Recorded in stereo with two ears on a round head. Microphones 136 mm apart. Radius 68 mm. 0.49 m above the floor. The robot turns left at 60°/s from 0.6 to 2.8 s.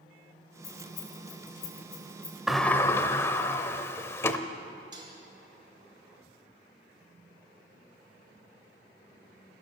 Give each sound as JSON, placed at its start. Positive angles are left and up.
{"t": 0.6, "sound": "keys jangling", "side_deg": 75, "distance_m": 3.0}
{"t": 2.5, "sound": "a sliding door", "side_deg": 0, "distance_m": 0.6}
{"t": 4.9, "sound": "dishes clattering", "side_deg": -30, "distance_m": 2.0}